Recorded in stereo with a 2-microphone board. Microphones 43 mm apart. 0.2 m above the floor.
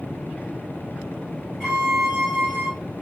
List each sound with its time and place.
1.6 s a violin: 10° left (ahead or behind), 1.9 m